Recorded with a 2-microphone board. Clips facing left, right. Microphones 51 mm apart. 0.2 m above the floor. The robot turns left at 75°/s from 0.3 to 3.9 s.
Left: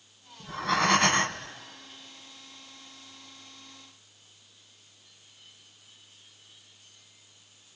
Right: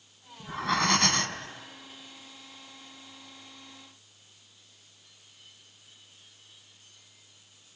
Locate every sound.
0.4 s breathing: 160° right, 1.2 m; by 1.5 s 120° left, 1.2 m